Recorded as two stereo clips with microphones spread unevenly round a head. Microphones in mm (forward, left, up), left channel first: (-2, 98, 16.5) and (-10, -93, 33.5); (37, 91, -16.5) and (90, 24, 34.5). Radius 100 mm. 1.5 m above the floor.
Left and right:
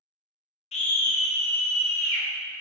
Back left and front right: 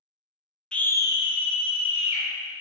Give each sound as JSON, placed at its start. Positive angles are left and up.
{"t": 0.7, "sound": "a scream", "azimuth_deg": 25, "distance_m": 0.5}